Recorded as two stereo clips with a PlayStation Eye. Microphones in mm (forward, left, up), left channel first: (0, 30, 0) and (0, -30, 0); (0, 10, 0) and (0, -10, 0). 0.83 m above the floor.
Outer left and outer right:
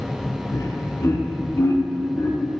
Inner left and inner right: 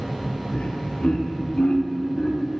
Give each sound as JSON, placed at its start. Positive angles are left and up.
{"t": 0.5, "sound": "laughter", "side_deg": 70, "distance_m": 2.5}